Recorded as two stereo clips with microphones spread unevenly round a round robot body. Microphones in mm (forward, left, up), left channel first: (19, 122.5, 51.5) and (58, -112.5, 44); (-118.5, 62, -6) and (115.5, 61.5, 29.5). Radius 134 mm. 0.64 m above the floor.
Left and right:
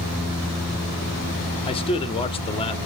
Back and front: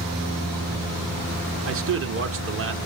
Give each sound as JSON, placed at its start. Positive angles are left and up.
{"t": 1.6, "sound": "a man speaking", "azimuth_deg": 30, "distance_m": 1.2}